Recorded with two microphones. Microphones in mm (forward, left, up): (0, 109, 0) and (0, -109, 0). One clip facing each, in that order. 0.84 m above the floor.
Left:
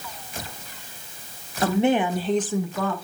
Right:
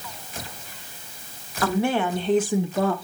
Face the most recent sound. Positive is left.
turn(degrees=-40)  # may be behind; listen again after turning